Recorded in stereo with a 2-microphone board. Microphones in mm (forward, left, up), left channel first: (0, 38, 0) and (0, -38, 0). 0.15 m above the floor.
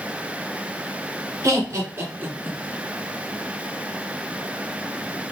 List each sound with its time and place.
1.4 s laughter: 45° right (ahead or behind), 2 m; by 2.6 s 20° right (ahead or behind), 1.8 m